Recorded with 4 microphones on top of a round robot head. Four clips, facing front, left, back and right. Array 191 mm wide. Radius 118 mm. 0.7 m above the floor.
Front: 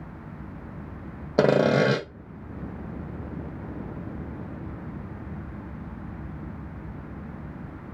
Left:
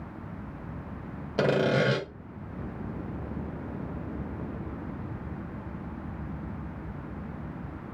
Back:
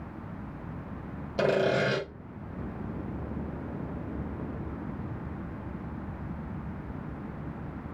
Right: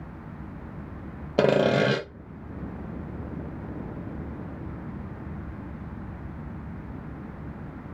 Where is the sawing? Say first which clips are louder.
Right 4 dB, front 6 dB; 30° right, 0.6 m.